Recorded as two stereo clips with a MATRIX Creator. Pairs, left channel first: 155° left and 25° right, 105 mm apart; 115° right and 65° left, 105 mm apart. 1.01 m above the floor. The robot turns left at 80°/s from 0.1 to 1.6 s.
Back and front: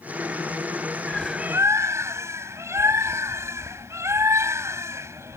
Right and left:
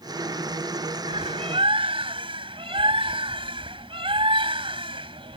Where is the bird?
80° left; by 5.4 s 40° left.